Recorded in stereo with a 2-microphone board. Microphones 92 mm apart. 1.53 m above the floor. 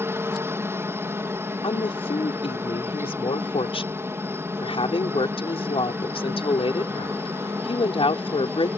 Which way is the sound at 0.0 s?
30° right (ahead or behind).